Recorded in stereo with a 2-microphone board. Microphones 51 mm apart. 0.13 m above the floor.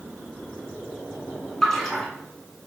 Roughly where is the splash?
Centre.